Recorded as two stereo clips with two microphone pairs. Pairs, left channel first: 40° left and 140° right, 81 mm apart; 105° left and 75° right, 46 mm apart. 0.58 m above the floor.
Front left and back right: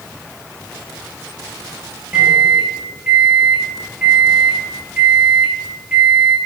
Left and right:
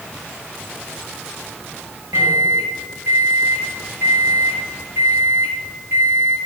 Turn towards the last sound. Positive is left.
turn(degrees=-60)